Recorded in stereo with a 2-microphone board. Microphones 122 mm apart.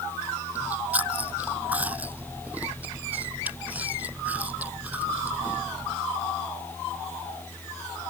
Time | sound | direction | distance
0.6 | chewing | 15° right (ahead or behind) | ?